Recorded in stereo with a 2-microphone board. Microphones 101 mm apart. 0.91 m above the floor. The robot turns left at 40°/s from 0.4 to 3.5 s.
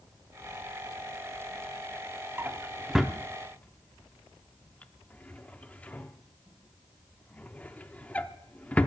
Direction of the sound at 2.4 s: 25° right (ahead or behind).